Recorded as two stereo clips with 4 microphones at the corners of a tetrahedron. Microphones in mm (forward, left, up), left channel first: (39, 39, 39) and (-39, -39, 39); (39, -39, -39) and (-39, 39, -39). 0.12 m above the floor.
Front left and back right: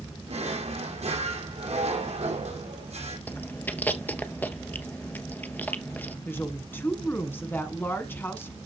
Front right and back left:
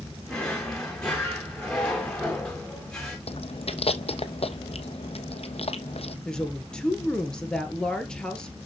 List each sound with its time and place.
0.3 s a drawer: 130° right, 3 m
3.3 s chewing: 30° right, 1.0 m
6.2 s a woman speaking: 20° left, 1.5 m